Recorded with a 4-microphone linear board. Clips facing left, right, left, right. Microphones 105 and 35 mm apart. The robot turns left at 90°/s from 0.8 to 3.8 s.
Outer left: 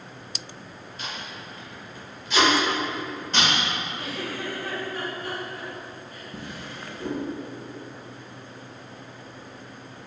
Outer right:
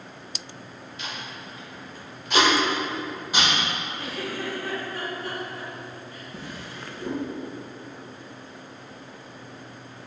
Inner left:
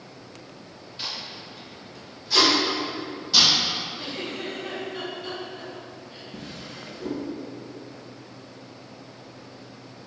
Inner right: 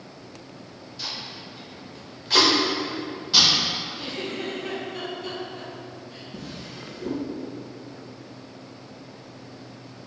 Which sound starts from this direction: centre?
A giggle, at 4.0 s.